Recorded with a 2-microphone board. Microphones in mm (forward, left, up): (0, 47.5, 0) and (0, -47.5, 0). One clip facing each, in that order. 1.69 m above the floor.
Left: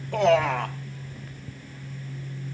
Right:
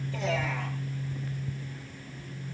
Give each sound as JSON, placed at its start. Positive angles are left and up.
{"t": 0.1, "sound": "a man speaking", "side_deg": 60, "distance_m": 1.7}